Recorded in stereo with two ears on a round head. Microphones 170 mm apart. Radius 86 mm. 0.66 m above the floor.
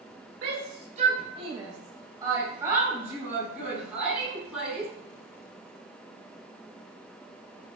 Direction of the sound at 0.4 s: 55° right (ahead or behind).